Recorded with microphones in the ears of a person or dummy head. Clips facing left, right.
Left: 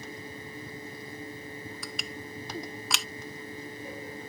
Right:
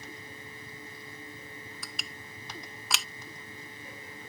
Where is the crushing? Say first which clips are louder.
Left 7 dB; centre (ahead or behind).